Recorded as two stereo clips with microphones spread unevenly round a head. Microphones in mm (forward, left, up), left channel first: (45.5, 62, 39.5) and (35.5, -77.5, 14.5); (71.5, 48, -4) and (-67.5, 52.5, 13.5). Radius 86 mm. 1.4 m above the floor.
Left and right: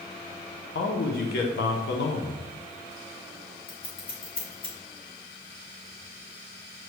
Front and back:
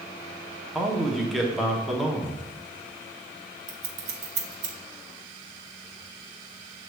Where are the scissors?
145° left, 1.1 m.